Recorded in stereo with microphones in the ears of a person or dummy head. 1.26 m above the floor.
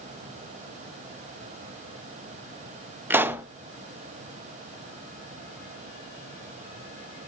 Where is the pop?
10° right (ahead or behind), 0.7 m.